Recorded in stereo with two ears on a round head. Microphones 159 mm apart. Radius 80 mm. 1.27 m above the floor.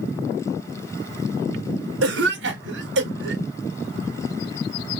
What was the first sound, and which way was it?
A cough, 70° right (ahead or behind).